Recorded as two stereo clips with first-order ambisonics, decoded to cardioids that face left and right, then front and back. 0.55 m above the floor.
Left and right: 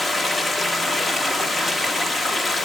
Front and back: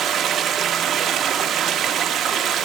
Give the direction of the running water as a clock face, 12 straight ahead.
7 o'clock.